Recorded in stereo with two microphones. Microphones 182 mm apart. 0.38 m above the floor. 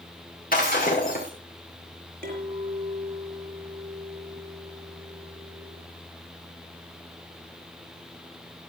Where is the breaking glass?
50° left (ahead or behind), 5.5 m.